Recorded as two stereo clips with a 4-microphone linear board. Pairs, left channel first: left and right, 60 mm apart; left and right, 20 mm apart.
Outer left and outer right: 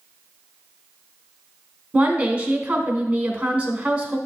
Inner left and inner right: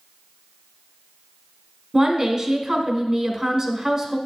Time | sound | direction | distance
1.9 | a woman speaking | 20° right (ahead or behind) | 1.1 m